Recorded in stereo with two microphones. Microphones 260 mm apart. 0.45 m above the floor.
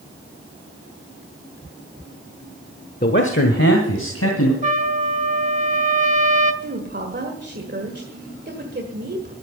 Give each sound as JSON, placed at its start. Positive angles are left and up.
{"t": 3.0, "sound": "a man speaking", "side_deg": 35, "distance_m": 0.9}
{"t": 4.6, "sound": "a trumpet", "side_deg": -30, "distance_m": 1.1}
{"t": 6.6, "sound": "a woman speaking", "side_deg": -40, "distance_m": 1.7}